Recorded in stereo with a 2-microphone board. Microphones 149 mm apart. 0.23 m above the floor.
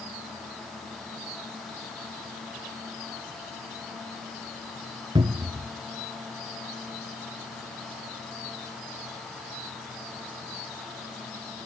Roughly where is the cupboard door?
Right.